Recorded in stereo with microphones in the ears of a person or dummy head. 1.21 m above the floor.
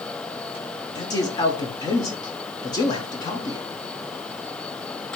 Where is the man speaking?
20° left (ahead or behind), 0.6 m.